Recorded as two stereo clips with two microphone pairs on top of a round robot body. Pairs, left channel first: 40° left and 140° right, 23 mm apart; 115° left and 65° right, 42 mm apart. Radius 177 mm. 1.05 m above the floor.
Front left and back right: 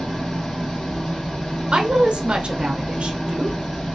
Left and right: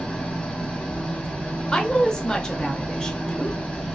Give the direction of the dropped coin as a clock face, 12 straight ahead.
No dropped coin in this recording.